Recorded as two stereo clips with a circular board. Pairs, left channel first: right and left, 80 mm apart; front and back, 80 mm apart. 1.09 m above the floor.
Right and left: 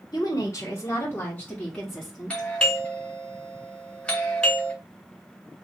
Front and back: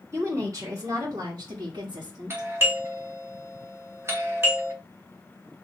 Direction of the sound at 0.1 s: 125° right.